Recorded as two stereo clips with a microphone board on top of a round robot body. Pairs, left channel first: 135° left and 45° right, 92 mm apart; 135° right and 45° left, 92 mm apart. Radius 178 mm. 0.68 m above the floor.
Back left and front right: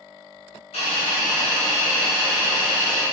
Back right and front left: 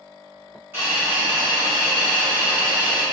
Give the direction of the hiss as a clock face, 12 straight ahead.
8 o'clock.